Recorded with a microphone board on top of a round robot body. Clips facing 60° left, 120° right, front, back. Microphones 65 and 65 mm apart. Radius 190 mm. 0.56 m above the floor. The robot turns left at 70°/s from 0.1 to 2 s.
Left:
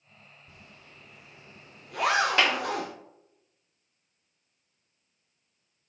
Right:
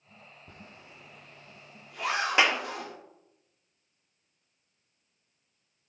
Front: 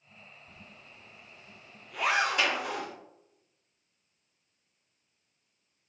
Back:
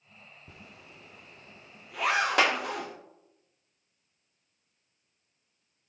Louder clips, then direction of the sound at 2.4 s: Even, back 4 dB; 170° left.